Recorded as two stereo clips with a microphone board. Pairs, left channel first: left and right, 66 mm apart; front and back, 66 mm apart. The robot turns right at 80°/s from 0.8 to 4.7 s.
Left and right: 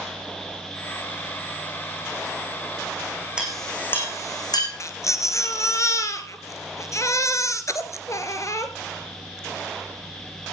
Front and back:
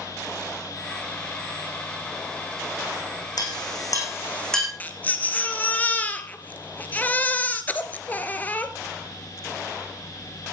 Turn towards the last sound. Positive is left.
turn(degrees=60)